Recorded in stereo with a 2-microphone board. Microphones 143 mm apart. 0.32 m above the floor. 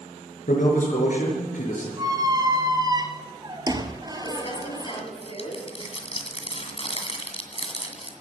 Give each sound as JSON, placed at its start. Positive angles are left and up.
{"t": 0.5, "sound": "a man speaking", "side_deg": 70, "distance_m": 4.5}
{"t": 2.0, "sound": "a squeak", "side_deg": -30, "distance_m": 1.0}
{"t": 4.2, "sound": "crumpling", "side_deg": 45, "distance_m": 2.0}